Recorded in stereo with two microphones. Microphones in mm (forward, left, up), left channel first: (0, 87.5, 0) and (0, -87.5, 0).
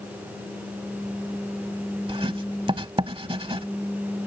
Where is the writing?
30° right (ahead or behind).